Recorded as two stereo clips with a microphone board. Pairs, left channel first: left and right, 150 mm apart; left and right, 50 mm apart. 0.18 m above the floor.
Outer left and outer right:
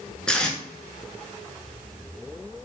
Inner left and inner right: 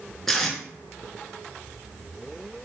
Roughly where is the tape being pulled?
Centre.